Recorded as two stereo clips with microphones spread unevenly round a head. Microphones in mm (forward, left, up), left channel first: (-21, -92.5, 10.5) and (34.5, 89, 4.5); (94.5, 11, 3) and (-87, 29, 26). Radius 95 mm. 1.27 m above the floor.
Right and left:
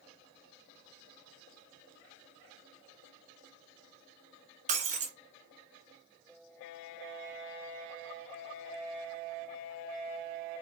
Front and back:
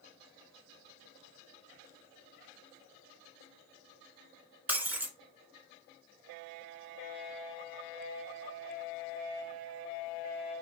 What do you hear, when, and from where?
4.7 s breaking glass: 105° left, 1.5 m